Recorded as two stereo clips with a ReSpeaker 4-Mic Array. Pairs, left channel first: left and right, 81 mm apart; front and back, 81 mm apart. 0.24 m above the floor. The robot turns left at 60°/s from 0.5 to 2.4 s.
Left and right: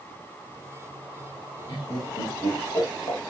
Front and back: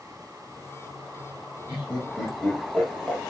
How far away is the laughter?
About 5.5 m.